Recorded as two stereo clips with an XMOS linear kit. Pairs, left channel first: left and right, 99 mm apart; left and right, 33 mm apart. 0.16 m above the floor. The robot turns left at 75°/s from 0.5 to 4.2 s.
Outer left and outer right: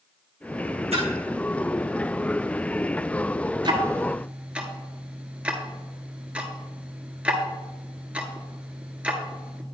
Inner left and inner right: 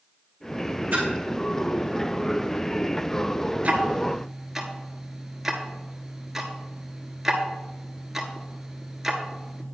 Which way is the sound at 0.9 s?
85° right.